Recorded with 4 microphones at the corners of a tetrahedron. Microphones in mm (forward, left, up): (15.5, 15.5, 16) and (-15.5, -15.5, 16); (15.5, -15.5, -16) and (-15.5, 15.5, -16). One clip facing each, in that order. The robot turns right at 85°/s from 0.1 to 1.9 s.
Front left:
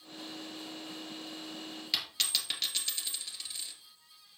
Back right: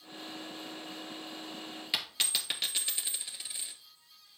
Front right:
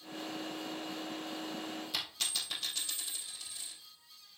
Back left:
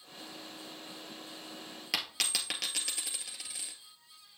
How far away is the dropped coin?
About 1.9 m.